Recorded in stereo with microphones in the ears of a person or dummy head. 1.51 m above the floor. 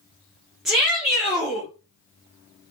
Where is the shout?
5° right (ahead or behind), 2.5 m.